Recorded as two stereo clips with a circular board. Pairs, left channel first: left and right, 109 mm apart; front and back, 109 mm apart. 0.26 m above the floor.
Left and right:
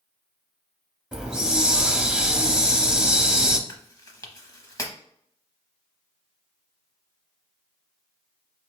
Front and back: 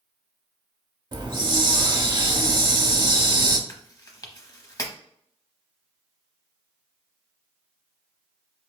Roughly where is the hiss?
Behind.